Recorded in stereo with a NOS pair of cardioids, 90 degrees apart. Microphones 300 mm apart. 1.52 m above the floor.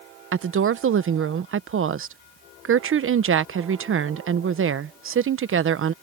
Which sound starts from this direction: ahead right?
A woman speaking, at 0.3 s.